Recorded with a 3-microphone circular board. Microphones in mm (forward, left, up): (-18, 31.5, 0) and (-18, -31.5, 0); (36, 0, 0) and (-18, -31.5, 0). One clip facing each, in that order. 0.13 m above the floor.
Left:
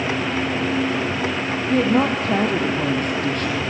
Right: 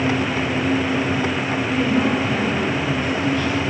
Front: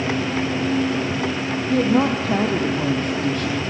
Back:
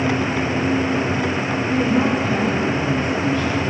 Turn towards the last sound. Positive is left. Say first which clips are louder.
# left 2 dB, front 1 dB
turn(degrees=60)